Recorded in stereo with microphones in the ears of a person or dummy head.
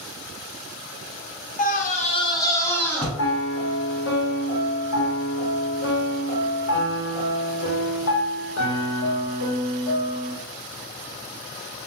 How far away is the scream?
About 0.6 m.